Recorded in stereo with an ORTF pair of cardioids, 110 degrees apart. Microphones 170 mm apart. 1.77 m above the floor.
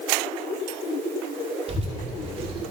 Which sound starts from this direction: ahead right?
A child speaking, at 1.7 s.